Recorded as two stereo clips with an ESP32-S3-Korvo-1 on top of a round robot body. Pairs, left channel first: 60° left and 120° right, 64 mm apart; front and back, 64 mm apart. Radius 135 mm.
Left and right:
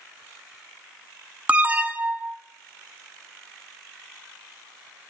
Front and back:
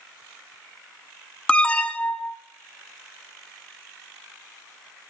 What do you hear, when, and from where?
1.5 s an alarm: 65° right, 0.9 m